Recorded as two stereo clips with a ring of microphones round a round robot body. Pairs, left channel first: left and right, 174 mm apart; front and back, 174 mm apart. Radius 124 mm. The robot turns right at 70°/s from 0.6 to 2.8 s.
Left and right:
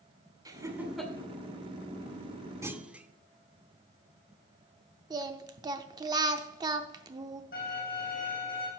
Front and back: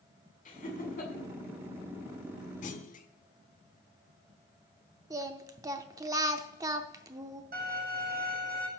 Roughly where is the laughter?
Ahead right.